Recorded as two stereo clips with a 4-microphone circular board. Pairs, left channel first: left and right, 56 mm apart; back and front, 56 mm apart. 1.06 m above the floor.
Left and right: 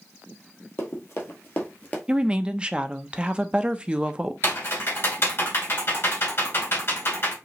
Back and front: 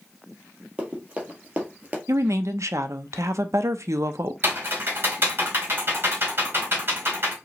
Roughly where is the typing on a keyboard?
Ahead left.